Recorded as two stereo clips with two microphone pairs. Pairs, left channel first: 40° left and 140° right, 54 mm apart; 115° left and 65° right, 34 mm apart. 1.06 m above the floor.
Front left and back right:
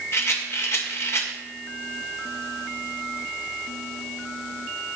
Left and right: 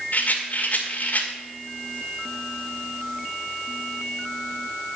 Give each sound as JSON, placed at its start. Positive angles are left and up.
{"t": 0.1, "sound": "a rattle", "azimuth_deg": 80, "distance_m": 1.9}